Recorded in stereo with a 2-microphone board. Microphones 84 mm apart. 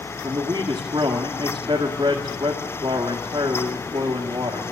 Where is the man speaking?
55° right (ahead or behind), 2 m.